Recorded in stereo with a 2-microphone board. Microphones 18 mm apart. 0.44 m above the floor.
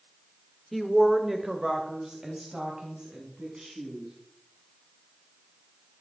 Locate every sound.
0.7 s a woman speaking: 10° left (ahead or behind), 1.0 m; by 4.1 s 45° right (ahead or behind), 4 m